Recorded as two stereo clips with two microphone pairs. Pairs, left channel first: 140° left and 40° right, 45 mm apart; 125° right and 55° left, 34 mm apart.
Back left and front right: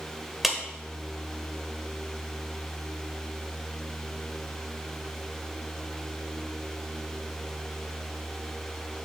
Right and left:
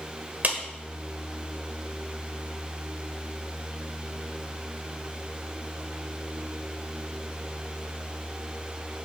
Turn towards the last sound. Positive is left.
turn(degrees=50)